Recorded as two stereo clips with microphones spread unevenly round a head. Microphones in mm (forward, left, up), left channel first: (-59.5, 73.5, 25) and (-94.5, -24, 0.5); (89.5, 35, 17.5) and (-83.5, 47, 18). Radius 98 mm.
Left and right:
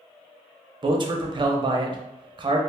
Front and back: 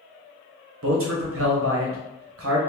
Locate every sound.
0.8 s a man speaking: 160° right, 0.7 m